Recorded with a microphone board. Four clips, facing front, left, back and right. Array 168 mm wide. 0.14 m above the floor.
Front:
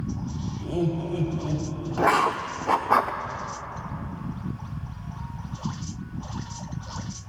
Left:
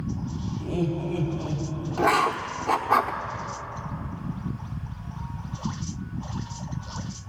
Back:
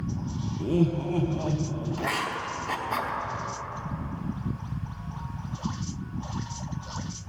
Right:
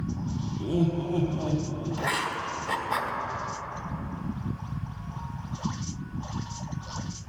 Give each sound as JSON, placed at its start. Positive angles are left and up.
{"t": 0.6, "sound": "laughter", "azimuth_deg": -150, "distance_m": 3.5}
{"t": 2.0, "sound": "writing", "azimuth_deg": 30, "distance_m": 1.0}